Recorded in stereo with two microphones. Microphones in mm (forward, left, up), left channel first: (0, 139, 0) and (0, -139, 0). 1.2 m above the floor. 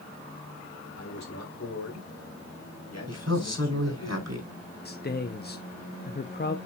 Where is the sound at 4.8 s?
35° left (ahead or behind), 0.8 m.